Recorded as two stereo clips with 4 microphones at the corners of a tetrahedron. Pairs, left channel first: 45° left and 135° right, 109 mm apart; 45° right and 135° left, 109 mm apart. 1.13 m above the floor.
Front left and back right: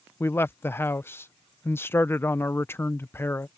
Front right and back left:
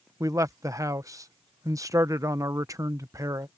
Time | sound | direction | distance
0.2 | a man speaking | 100° left | ?